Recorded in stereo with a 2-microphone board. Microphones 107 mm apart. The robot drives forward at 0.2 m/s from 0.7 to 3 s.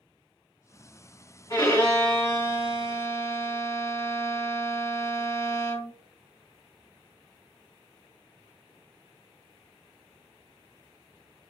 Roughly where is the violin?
Left.